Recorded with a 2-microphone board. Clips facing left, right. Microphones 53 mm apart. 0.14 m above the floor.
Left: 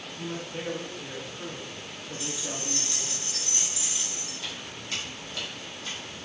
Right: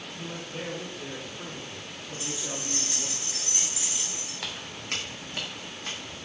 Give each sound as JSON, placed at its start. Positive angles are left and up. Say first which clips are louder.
{"t": 0.2, "sound": "a man speaking", "louder": "left 3 dB", "side_deg": 5, "distance_m": 1.2}
{"t": 2.2, "sound": "keys jangling", "louder": "even", "side_deg": -20, "distance_m": 1.6}
{"t": 4.4, "sound": "footsteps", "louder": "right 3 dB", "side_deg": -70, "distance_m": 1.4}